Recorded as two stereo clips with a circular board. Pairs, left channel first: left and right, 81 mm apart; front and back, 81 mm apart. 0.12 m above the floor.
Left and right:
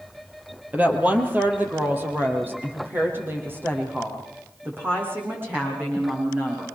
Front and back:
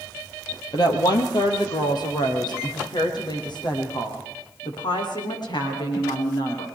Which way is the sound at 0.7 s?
20° right.